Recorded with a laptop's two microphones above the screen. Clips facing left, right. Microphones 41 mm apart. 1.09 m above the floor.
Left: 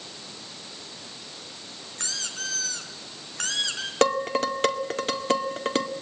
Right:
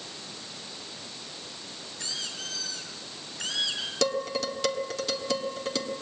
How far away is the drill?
I don't hear a drill.